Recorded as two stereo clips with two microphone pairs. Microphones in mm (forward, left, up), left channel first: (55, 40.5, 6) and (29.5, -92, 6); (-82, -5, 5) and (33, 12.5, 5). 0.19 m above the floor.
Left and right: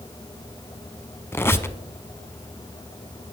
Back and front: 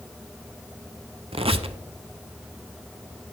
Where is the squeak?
10° left, 0.6 m.